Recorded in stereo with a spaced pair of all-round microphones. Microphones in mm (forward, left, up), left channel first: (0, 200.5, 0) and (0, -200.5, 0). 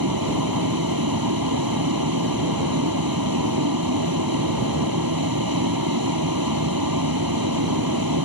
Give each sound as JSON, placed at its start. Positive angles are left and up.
{"t": 0.0, "sound": "a vehicle", "side_deg": -60}